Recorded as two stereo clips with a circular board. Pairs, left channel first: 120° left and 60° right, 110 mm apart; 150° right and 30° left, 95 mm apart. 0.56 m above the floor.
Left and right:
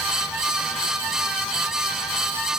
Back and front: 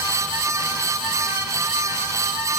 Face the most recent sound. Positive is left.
No sound to turn to.